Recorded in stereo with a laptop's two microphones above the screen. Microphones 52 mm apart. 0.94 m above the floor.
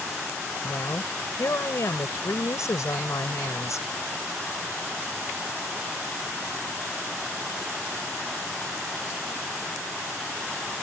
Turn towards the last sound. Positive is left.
turn(degrees=70)  # may be behind; listen again after turning